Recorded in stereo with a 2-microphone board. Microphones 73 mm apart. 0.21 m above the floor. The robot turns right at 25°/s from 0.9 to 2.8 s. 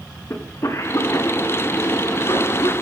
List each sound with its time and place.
0.3 s a cough: 45° left (ahead or behind), 2 m; by 2.7 s 65° left (ahead or behind), 2 m